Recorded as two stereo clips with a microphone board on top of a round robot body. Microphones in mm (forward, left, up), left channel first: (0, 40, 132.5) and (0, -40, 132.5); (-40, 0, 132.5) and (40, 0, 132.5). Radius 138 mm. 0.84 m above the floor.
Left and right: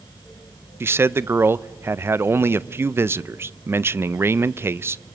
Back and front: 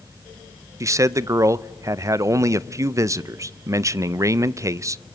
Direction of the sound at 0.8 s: 40° right.